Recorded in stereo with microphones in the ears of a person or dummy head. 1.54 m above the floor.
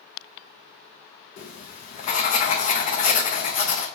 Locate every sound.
1.4 s writing: 45° left (ahead or behind), 0.5 m